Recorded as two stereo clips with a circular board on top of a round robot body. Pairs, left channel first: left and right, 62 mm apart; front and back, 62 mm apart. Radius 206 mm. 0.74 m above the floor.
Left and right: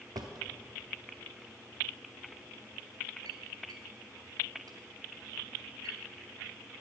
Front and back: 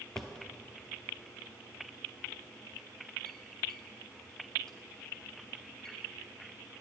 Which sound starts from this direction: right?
A drawer, at 0.1 s.